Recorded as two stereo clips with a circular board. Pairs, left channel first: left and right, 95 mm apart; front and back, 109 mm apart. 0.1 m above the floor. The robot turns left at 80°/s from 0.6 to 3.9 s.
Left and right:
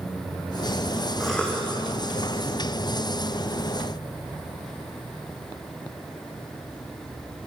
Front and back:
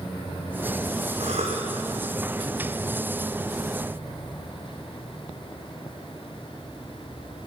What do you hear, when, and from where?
1.2 s a cough: 175° right, 5.5 m; by 1.7 s 145° left, 5.5 m